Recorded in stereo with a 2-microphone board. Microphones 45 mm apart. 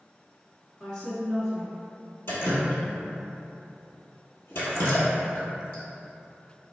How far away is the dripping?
About 1.2 m.